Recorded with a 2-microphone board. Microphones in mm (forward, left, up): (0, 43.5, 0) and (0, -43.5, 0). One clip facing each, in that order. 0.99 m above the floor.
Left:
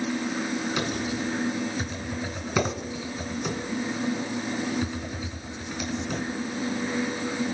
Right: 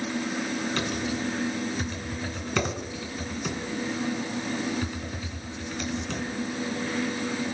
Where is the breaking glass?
No breaking glass in this recording.